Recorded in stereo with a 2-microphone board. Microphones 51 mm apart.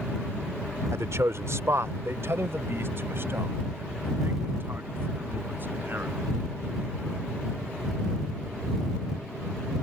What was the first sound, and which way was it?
A man speaking, 65° right (ahead or behind).